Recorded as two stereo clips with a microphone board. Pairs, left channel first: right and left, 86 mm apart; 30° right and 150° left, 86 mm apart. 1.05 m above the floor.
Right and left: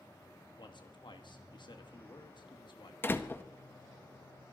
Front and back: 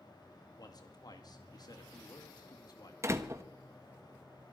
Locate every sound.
0.6 s a man speaking: 65° right, 2 m
3.0 s a door slam: 155° right, 1.1 m